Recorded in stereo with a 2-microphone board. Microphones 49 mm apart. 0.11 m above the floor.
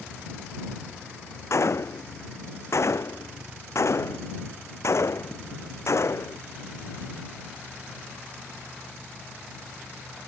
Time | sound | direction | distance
1.5 | a gunshot | 65° left (ahead or behind) | ?